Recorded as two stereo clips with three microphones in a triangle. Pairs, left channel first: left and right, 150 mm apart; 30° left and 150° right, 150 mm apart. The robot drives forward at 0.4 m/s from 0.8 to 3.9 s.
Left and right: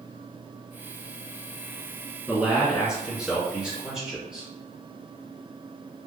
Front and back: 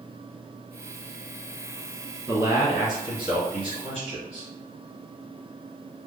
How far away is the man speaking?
About 1.6 m.